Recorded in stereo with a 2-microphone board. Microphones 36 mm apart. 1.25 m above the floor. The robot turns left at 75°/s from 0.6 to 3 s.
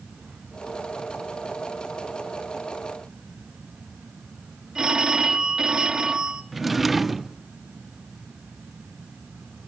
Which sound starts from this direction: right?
A phone ringing, at 4.8 s.